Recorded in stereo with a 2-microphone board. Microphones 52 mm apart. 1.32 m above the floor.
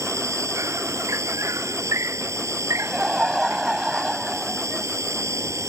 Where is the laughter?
10° right (ahead or behind).